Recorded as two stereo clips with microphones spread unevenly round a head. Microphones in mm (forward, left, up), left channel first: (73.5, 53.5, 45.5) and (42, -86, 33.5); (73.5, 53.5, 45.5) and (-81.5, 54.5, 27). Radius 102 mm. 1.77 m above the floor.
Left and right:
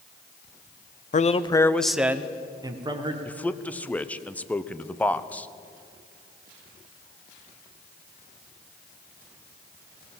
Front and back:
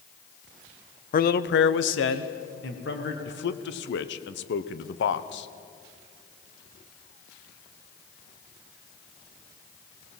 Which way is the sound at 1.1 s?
40° left.